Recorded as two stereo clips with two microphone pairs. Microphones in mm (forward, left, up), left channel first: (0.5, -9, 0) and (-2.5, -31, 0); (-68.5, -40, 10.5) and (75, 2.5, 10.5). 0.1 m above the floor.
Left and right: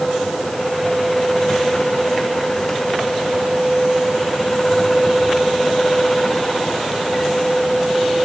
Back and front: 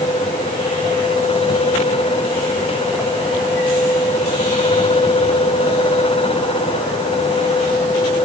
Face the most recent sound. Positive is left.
No sound to turn to.